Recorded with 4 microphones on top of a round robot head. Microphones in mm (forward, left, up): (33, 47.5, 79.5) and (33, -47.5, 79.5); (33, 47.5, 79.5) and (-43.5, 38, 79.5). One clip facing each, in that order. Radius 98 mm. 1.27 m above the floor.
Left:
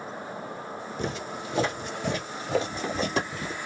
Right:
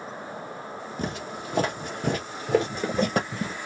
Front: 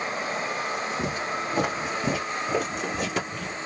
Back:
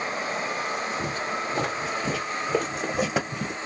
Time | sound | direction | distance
1.0 | footsteps | 50° right | 2.5 m